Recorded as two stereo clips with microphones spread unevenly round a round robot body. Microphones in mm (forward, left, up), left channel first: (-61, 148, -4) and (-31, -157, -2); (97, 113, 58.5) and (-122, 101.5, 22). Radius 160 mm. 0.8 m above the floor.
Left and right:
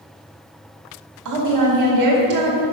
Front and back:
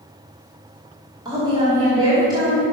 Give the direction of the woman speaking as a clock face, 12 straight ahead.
4 o'clock.